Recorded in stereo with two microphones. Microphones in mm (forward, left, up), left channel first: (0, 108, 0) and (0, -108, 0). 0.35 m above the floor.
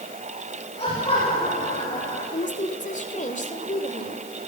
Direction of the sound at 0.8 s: 25° left (ahead or behind).